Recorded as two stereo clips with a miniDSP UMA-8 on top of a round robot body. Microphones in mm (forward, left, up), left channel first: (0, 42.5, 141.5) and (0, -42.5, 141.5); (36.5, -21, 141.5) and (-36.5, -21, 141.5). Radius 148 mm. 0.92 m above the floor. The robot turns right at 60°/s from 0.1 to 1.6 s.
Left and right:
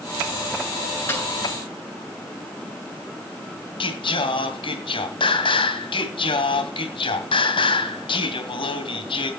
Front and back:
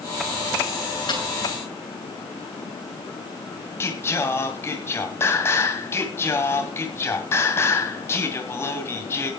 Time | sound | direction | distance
1.1 | a snare drum | 20° left | 9 m
3.8 | singing | 60° left | 2 m